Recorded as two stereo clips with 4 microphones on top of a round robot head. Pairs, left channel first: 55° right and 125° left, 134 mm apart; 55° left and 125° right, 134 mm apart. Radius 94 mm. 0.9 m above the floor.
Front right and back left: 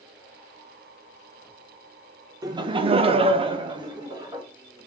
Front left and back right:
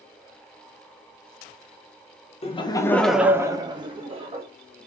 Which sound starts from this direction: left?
Laughter, at 2.4 s.